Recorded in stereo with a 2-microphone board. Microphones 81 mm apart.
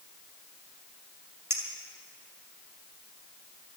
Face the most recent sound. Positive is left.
turn(degrees=-35)  # may be behind; listen again after turning